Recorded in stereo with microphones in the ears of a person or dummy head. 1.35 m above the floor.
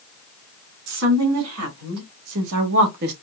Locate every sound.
0.9 s a woman speaking: 85° right, 2.5 m; by 3.1 s 50° right (ahead or behind), 1.0 m